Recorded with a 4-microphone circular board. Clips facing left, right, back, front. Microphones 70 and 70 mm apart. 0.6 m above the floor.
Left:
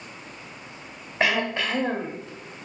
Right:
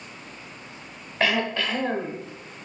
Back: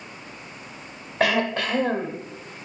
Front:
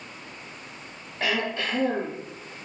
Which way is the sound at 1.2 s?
165° left.